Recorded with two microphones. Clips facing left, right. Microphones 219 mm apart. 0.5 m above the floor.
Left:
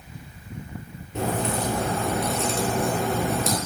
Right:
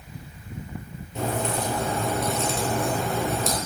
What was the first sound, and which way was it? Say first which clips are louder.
A crack: left 1 dB; 65° left (ahead or behind).